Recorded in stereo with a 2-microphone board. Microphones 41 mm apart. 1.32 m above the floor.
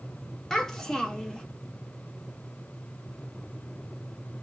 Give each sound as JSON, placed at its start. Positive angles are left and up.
{"t": 0.5, "sound": "a child speaking", "side_deg": 15, "distance_m": 1.0}